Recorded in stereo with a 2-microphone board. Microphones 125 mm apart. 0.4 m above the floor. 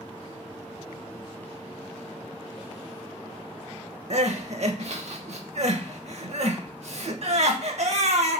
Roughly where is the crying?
Right.